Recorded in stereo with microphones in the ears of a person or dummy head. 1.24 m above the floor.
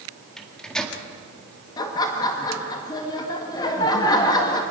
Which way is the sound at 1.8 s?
25° left (ahead or behind).